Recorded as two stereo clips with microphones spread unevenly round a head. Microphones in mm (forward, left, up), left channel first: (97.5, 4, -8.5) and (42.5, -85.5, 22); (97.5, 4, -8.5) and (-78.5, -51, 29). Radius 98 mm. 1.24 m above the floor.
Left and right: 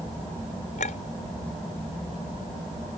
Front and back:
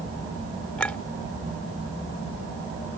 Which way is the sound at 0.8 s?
105° left.